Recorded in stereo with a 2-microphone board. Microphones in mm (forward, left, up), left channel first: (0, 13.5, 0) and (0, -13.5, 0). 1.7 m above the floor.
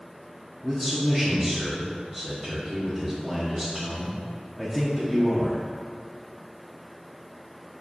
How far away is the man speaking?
About 1.0 m.